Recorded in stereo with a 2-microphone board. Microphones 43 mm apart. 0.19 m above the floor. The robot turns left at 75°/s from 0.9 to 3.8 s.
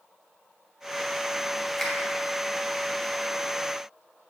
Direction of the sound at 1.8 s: 10° left (ahead or behind).